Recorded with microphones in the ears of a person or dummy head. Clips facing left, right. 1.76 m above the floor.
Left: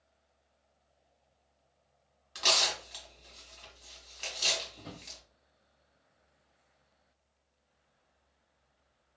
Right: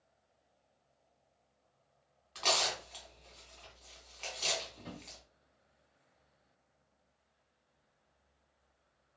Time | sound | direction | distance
2.4 | tearing paper | 20° left (ahead or behind) | 1.3 m
4.8 | a drawer | 10° left (ahead or behind) | 0.8 m